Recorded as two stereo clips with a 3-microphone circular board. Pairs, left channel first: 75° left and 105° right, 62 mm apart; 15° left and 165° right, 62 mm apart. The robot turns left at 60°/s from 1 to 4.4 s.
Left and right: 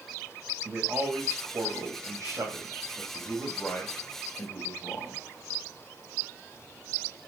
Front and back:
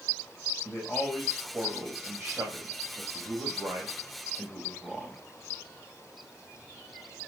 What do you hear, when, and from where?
0.7 s a man speaking: 60° right, 4 m; by 5.2 s 95° left, 4 m